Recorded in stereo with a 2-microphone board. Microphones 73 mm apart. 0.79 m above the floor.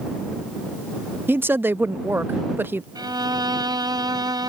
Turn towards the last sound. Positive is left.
turn(degrees=-70)  # may be behind; listen again after turning